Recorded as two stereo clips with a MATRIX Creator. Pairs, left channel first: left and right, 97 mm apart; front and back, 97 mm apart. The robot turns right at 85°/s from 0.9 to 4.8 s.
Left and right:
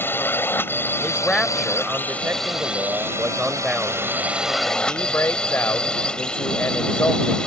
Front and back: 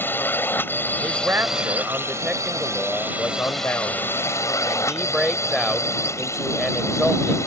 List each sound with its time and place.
0.0 s a drone: 45° left; by 7.5 s 15° left
1.0 s a man speaking: 130° left; by 7.4 s 90° left